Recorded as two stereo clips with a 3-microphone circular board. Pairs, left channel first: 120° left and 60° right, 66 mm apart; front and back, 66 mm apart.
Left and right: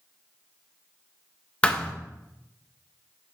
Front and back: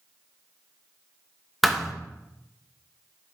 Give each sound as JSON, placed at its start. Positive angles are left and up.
{"t": 1.6, "sound": "a thud", "azimuth_deg": 85, "distance_m": 0.7}